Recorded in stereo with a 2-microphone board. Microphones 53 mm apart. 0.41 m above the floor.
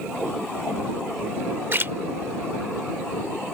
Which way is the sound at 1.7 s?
45° right (ahead or behind).